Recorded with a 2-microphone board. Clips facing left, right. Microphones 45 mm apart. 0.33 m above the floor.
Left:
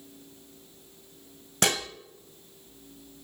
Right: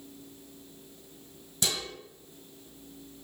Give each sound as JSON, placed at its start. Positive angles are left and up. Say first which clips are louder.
{"t": 1.6, "sound": "dishes clattering", "louder": "left 7 dB", "side_deg": 60, "distance_m": 1.1}